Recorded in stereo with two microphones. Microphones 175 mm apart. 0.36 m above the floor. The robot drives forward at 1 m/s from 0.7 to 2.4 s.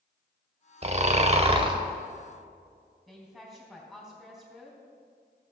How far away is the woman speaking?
About 3 m.